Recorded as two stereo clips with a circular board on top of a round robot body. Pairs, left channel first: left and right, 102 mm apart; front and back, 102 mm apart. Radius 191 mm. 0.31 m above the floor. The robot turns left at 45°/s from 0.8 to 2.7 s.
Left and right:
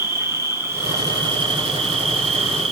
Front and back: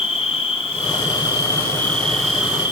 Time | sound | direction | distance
0.0 | an insect | 25° right | 5.5 m